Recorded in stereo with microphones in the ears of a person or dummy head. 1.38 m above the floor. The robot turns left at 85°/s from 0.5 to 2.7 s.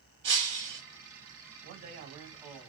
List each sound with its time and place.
0.2 s breaking glass: 30° right (ahead or behind), 1.6 m; by 0.8 s 35° right (ahead or behind), 1.6 m
1.6 s a man speaking: 110° right, 1.0 m; by 2.7 s 160° left, 1.0 m